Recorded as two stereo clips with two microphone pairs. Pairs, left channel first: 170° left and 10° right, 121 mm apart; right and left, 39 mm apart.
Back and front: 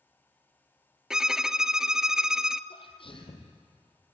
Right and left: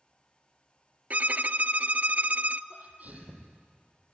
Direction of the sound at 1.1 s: 75° left.